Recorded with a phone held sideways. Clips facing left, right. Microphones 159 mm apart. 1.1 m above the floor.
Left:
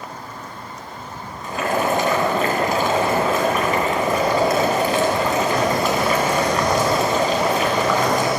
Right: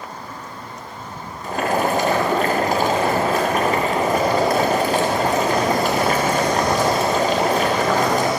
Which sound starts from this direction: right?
Boiling, at 1.4 s.